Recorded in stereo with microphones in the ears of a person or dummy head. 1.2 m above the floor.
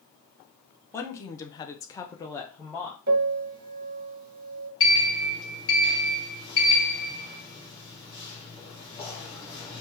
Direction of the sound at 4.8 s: 30° left (ahead or behind).